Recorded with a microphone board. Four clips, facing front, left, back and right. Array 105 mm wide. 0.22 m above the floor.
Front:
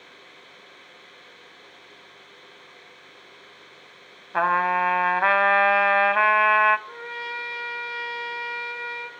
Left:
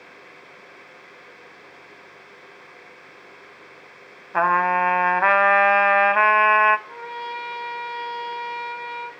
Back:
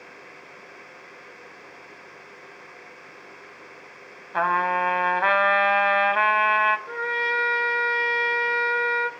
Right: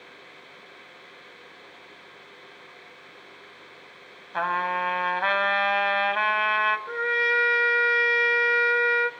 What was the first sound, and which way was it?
A trumpet, 75° left.